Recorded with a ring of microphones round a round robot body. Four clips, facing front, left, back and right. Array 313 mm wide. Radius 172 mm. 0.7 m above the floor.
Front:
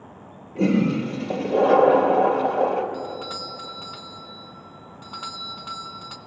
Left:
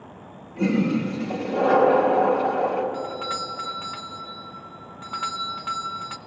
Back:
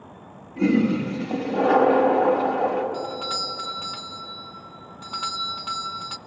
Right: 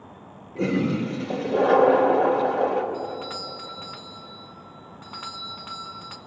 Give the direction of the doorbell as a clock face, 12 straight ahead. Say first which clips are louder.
Left 2 dB, back 2 dB; 8 o'clock.